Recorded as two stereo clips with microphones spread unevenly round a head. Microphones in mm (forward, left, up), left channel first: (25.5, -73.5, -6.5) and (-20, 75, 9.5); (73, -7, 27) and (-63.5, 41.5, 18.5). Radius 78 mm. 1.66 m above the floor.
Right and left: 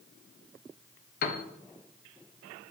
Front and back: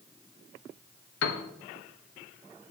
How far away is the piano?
About 0.8 m.